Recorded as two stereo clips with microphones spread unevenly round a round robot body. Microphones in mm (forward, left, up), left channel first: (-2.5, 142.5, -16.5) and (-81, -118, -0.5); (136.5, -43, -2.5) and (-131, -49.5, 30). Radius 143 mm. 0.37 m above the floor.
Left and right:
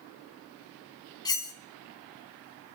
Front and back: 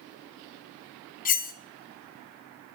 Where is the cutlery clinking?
10° left, 0.8 m.